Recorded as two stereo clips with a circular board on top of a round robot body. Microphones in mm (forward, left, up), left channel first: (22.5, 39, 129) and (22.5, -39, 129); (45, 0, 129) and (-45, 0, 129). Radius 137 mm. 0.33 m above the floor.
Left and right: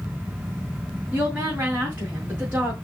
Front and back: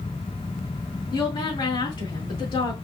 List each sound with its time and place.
1.1 s a woman speaking: 20° right, 3 m